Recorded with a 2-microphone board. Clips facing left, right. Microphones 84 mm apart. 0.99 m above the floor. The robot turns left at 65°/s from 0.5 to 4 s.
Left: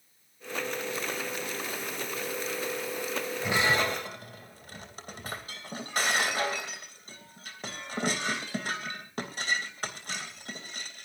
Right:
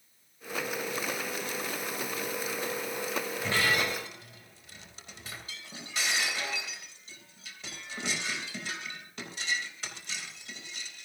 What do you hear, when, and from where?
3.4 s breaking glass: 5° left (ahead or behind), 3 m; by 11.1 s 45° left (ahead or behind), 3 m